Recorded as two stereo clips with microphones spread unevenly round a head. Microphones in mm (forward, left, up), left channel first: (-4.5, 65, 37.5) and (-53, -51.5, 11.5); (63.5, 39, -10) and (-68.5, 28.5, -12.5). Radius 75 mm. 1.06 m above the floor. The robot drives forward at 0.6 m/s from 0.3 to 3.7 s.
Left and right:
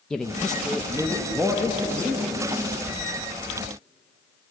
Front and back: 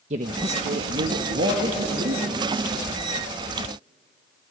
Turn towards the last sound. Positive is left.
turn(degrees=170)